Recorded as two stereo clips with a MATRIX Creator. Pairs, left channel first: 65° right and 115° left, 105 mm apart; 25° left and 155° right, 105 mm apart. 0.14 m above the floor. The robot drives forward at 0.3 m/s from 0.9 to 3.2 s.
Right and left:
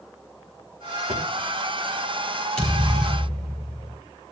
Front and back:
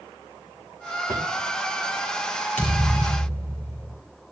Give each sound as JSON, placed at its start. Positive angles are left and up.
{"t": 1.1, "sound": "a drawer", "azimuth_deg": 140, "distance_m": 4.5}
{"t": 2.6, "sound": "a thud", "azimuth_deg": 95, "distance_m": 6.0}